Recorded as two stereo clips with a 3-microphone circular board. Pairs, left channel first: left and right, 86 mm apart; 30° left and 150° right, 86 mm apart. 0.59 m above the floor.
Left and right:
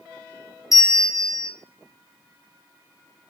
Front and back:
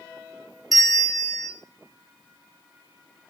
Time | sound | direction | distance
0.7 | a bell | 120° left | 0.9 m